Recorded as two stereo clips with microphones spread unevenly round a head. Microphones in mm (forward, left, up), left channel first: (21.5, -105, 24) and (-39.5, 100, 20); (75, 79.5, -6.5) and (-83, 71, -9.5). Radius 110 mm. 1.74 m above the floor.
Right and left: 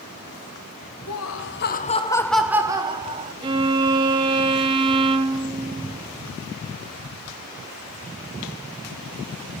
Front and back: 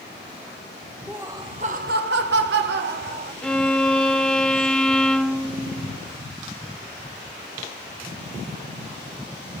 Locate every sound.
1.1 s laughter: 90° right, 1.8 m; by 3.3 s 165° left, 2.5 m
3.4 s a violin: 75° left, 1.0 m